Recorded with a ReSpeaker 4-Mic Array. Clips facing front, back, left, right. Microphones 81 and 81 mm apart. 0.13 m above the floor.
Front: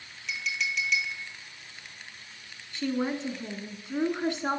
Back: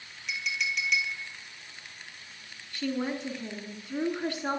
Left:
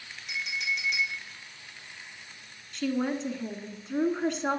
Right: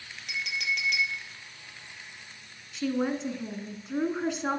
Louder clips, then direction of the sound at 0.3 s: Even, right 1 dB; 90° right.